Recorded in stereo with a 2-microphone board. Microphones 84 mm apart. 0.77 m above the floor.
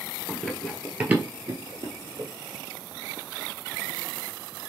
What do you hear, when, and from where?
0.3 s running footsteps: 15° left (ahead or behind), 1.1 m; by 2.3 s 60° right (ahead or behind), 1.6 m